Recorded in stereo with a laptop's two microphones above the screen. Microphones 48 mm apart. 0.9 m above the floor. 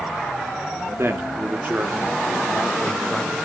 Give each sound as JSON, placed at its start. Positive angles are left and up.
{"t": 1.0, "sound": "a man speaking", "side_deg": -55, "distance_m": 1.6}